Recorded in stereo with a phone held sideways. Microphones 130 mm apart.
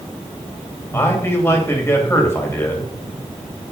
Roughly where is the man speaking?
Centre.